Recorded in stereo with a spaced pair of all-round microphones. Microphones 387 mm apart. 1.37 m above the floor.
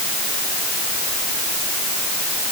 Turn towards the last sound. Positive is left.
No sound to turn to.